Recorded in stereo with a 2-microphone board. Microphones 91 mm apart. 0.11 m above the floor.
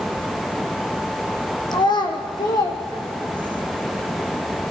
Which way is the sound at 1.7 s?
55° left (ahead or behind).